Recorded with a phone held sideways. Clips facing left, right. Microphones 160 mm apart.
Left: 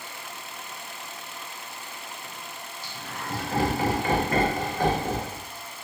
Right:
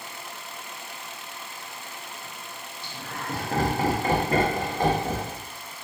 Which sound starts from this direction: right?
Laughter, at 2.8 s.